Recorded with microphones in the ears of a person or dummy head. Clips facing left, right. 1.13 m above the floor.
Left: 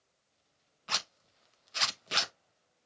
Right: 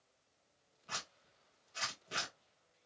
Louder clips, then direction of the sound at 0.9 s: Left 7 dB; 75° left (ahead or behind).